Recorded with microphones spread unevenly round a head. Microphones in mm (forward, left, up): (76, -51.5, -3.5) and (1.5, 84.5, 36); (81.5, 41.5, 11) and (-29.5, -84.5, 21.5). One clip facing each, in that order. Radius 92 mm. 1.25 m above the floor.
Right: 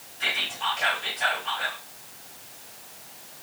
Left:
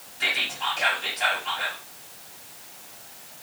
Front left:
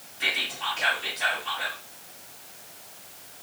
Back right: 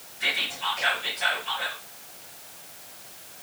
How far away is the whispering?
About 1.7 m.